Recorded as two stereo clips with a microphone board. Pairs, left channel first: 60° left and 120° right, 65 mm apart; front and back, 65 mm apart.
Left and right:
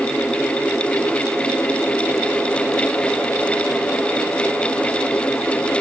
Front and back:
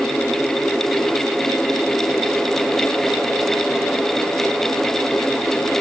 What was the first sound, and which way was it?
Only background noise.